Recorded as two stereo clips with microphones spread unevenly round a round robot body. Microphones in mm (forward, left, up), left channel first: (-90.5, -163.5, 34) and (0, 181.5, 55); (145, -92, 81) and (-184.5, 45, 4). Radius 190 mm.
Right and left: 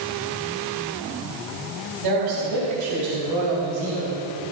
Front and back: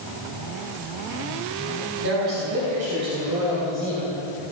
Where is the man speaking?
100° left, 3.5 m; by 4.2 s 60° left, 2.5 m.